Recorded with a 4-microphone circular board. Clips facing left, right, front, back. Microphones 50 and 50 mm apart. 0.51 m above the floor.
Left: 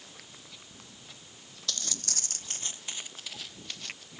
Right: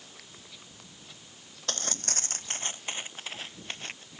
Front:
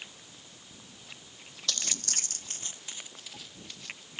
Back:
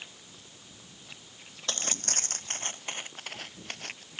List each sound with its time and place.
1.7 s footsteps: 130° right; by 4.0 s 145° right